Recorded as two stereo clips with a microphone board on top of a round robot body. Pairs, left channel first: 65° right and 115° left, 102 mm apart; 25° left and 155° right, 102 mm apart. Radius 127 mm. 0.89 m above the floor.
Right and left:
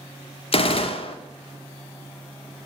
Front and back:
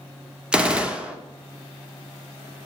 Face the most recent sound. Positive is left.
turn(degrees=-75)